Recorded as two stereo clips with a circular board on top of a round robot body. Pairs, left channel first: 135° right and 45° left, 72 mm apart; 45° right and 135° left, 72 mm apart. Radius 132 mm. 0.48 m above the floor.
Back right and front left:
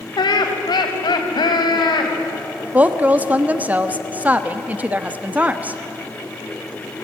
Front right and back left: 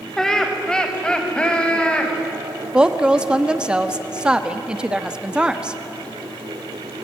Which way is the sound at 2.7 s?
75° left.